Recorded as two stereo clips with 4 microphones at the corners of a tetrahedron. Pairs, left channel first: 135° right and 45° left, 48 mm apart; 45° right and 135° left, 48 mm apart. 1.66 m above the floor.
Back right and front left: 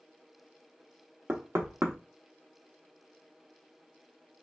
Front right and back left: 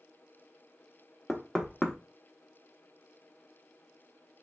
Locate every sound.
1.3 s knocking: 55° left, 0.7 m